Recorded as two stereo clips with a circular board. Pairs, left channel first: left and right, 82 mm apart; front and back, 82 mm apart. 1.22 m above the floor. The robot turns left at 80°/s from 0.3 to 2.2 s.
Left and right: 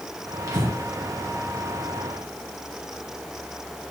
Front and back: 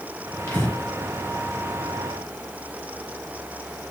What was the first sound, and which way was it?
Breathing, 55° right.